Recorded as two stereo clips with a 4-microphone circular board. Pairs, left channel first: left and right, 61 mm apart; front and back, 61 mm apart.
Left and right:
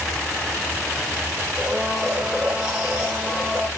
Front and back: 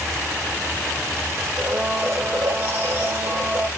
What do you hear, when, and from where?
1.6 s a blender: 160° right, 2 m